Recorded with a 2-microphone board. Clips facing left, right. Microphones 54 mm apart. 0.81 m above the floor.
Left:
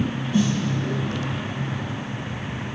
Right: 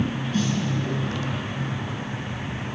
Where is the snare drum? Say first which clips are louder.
Left 4 dB; 15° left (ahead or behind), 7.5 m.